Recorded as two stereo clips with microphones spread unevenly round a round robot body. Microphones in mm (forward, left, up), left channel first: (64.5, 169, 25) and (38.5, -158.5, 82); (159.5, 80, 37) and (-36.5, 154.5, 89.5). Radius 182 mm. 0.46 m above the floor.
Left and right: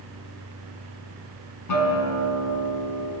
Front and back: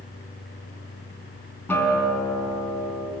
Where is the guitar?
60° left, 5 m.